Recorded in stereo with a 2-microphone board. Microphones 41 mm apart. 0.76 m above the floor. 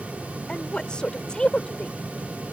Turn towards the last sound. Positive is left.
turn(degrees=20)  # may be behind; listen again after turning